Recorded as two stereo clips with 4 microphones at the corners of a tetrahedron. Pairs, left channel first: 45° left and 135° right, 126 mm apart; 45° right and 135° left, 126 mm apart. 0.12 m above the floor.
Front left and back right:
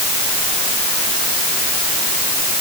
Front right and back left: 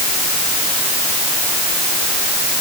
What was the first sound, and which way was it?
Only background noise.